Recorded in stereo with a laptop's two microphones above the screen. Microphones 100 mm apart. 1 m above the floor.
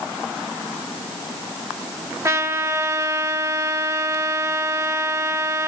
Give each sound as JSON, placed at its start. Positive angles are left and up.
{"t": 2.2, "sound": "a trumpet", "side_deg": -30, "distance_m": 1.3}